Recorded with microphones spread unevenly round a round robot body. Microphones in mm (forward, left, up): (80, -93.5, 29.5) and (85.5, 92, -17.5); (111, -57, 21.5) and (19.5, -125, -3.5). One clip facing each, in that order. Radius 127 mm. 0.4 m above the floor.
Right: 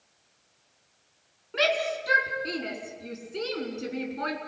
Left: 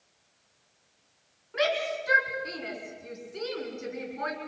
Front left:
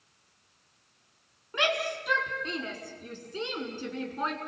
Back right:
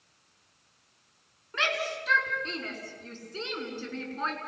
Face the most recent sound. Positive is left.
turn(degrees=-40)